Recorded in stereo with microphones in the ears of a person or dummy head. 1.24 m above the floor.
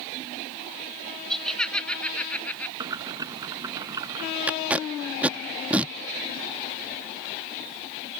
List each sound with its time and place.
1.3 s laughter: 5° left (ahead or behind); by 2.7 s 10° left (ahead or behind)
2.8 s boiling: 20° right (ahead or behind)
4.5 s tape being pulled: 5° right (ahead or behind)